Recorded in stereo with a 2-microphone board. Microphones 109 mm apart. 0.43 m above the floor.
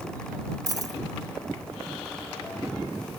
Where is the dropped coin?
35° right (ahead or behind).